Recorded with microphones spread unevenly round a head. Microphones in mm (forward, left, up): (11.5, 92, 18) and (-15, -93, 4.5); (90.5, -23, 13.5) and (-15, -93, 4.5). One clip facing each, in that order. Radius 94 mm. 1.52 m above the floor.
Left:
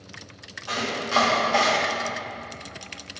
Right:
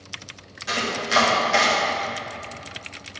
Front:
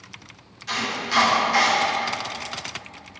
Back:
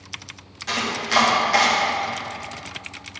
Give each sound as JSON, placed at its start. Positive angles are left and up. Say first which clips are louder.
{"t": 0.7, "sound": "chopping", "louder": "right 1 dB, back 3 dB", "azimuth_deg": -155, "distance_m": 1.1}